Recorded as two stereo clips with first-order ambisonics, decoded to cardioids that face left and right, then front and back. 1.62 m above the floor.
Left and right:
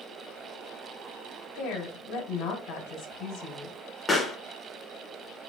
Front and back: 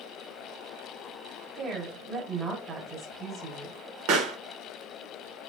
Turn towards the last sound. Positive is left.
turn(degrees=170)